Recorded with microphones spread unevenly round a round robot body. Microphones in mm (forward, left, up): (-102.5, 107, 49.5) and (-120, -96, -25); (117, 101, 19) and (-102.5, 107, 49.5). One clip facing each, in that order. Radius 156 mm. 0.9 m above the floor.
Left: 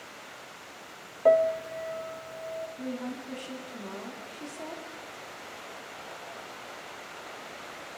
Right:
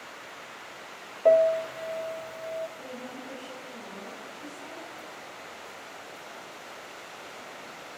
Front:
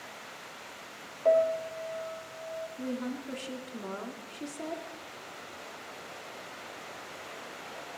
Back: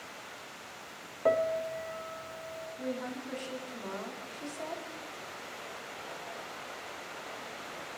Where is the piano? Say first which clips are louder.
Right 2 dB, front 3 dB; 155° left, 0.9 m.